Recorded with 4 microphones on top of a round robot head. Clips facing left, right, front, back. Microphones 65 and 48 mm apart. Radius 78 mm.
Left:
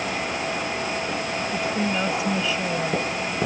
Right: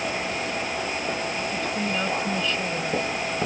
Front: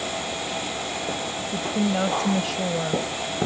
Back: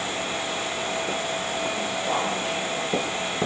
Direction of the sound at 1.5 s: 10° left.